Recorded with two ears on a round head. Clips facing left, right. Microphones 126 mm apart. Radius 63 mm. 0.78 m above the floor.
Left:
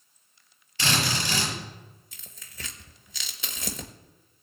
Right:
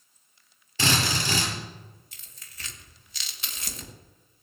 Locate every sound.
0.8 s a drill: 75° right (ahead or behind), 6.5 m
2.1 s tearing paper: 70° left (ahead or behind), 1.3 m